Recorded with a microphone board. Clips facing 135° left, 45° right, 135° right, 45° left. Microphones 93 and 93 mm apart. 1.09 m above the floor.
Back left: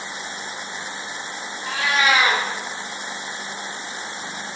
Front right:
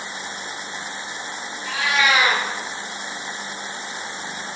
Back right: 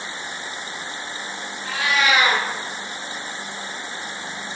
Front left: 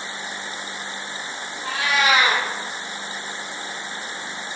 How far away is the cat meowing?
About 0.7 m.